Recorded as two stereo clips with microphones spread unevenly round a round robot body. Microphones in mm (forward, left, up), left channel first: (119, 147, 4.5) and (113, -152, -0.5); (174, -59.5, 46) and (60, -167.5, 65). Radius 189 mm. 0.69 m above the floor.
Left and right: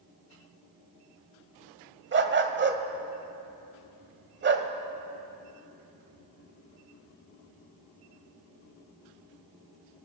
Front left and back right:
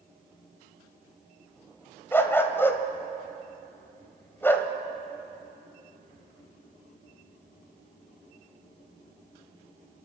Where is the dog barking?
35° right, 1.2 m.